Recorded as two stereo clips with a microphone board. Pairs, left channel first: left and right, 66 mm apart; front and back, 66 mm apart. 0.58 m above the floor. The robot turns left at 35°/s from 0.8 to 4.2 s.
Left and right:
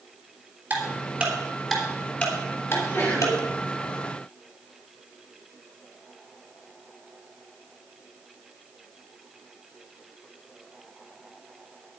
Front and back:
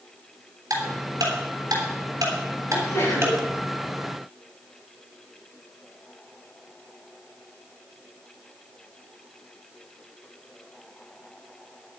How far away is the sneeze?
About 6 m.